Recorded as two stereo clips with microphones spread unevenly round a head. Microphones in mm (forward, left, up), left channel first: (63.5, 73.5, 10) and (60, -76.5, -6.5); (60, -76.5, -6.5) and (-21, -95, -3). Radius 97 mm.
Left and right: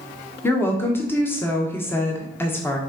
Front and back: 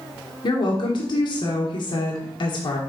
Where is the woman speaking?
10° left, 1.2 m.